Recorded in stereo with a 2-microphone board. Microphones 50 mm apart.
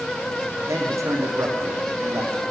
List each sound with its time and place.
0.7 s a man speaking: 75° right (ahead or behind), 5.5 m